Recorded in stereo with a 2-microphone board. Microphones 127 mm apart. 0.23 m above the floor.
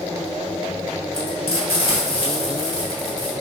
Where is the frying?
50° left (ahead or behind), 1.6 m.